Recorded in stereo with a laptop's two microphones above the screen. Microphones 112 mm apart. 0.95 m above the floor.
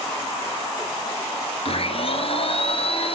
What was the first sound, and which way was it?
A blender, 60° left (ahead or behind).